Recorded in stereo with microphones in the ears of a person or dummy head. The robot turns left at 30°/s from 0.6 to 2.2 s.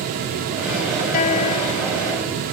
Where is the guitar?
45° left; by 2.4 s 10° left.